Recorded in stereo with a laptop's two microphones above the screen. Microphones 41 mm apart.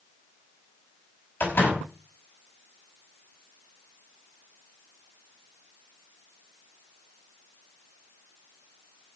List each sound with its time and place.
1.4 s a door slam: 50° left (ahead or behind), 5 m